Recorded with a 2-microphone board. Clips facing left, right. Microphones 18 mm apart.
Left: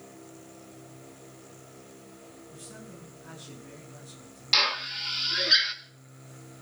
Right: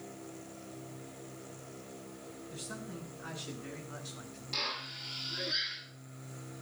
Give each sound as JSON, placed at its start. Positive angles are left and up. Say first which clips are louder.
{"t": 2.5, "sound": "a man speaking", "louder": "right 4 dB", "side_deg": -60, "distance_m": 8.5}
{"t": 4.5, "sound": "a drill", "louder": "left 12 dB", "side_deg": 65, "distance_m": 1.9}